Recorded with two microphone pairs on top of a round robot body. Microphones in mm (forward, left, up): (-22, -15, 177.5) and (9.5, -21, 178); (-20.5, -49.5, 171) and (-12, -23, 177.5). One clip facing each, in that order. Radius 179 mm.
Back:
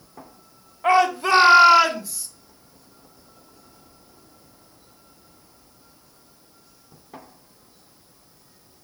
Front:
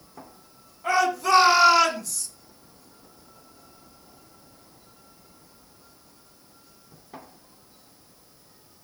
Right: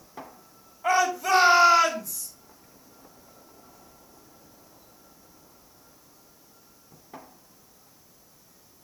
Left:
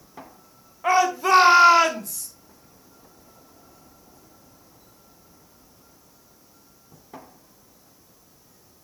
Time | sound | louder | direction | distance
0.8 | a shout | back 4 dB, left 4 dB | 130° left | 3 m